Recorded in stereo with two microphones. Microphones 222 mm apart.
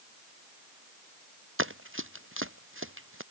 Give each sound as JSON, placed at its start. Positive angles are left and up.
{"t": 1.6, "sound": "running footsteps", "side_deg": -65}